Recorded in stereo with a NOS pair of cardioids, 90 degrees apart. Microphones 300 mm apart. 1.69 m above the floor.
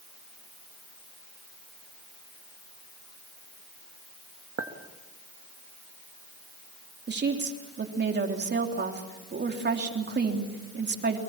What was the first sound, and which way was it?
A clink, 50° right.